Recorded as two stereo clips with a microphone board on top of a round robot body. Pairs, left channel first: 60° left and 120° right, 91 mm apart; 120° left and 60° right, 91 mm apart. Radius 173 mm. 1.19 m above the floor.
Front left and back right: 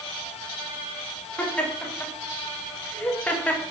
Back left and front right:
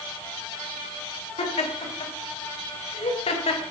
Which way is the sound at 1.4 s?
135° left.